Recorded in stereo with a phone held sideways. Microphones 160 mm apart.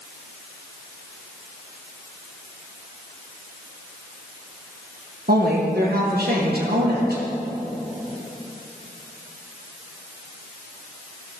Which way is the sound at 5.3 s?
80° right.